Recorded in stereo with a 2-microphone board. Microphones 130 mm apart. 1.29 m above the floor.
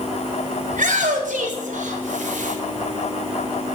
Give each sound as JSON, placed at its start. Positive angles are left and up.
{"t": 0.7, "sound": "a shout", "side_deg": -85, "distance_m": 5.0}